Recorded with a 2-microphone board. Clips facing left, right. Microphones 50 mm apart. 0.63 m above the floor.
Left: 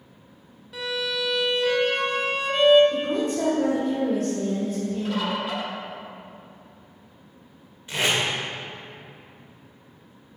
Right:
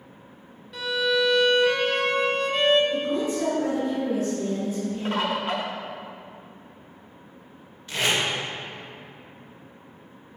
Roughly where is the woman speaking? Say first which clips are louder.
Left 1 dB; left.